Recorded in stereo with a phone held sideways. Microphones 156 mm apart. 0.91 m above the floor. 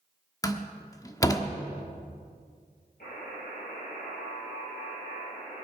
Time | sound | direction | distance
0.4 | a door slam | 25° left (ahead or behind) | 1.1 m
3.0 | a buzzer | 70° left (ahead or behind) | 7.5 m